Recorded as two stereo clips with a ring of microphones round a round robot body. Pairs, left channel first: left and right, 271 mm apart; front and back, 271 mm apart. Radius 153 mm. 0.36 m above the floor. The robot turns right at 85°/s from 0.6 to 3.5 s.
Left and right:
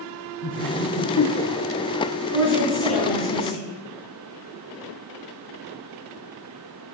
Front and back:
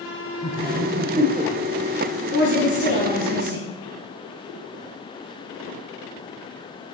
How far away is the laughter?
About 1.0 m.